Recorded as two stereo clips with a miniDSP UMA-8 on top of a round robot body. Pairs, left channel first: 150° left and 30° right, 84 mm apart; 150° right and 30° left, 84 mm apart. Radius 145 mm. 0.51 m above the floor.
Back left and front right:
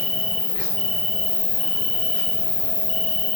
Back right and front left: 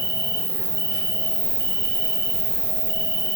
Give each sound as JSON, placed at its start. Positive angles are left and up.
{"t": 0.0, "sound": "an insect", "azimuth_deg": 60, "distance_m": 3.0}